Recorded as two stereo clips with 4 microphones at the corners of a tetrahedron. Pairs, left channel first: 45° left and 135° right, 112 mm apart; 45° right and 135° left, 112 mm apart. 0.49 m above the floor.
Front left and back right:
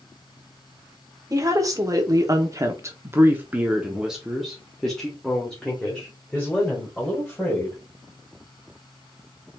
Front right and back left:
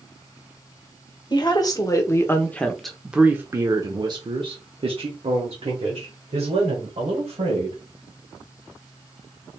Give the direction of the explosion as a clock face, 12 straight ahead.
No explosion in this recording.